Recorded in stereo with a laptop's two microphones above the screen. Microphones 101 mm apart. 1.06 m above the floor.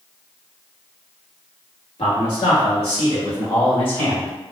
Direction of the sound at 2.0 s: 80° left.